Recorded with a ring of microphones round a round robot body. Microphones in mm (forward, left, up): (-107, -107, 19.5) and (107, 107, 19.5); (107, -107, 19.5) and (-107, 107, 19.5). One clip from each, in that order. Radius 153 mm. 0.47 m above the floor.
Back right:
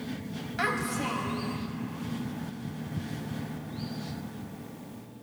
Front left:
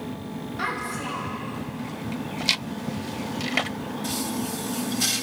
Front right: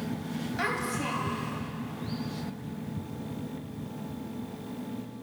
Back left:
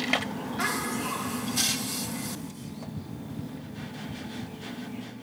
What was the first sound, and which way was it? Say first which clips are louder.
A child speaking: even, back left 1 dB; 120° right.